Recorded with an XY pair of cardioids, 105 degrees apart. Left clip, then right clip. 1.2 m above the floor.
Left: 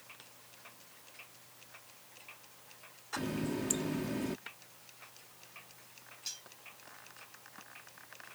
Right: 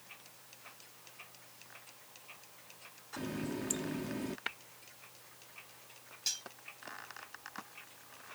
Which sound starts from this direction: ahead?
A running tap, at 3.2 s.